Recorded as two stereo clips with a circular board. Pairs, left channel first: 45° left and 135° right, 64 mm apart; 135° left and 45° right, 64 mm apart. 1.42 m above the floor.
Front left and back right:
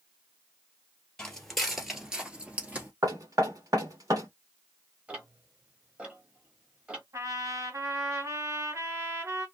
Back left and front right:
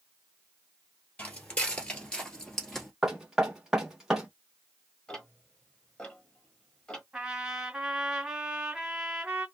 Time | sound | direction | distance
1.2 | footsteps | 105° left | 1.6 m
3.0 | knocking | 125° right | 1.4 m
5.1 | ticking | 175° right | 1.3 m
7.1 | a trumpet | 125° right | 2 m